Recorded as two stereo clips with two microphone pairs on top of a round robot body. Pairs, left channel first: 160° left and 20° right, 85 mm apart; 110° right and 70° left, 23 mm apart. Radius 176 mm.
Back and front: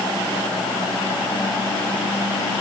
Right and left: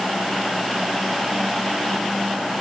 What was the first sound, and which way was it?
Only background noise.